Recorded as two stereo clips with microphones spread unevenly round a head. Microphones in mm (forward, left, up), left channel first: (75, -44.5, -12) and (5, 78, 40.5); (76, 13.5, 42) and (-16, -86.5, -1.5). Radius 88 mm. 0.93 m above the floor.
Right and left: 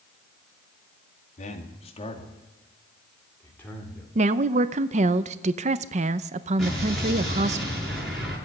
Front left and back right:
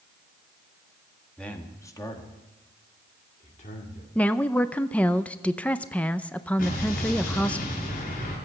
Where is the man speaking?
45° right, 2 m; by 4.0 s 15° left, 3.5 m.